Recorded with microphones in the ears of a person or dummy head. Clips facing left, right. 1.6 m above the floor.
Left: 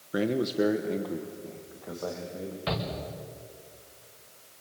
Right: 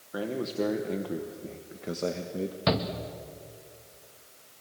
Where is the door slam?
No door slam in this recording.